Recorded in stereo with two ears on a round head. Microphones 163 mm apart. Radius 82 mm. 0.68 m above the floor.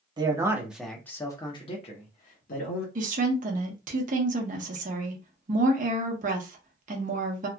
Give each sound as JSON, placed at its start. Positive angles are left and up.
{"t": 0.2, "sound": "a man speaking", "side_deg": -25, "distance_m": 0.8}
{"t": 3.0, "sound": "a woman speaking", "side_deg": -45, "distance_m": 0.8}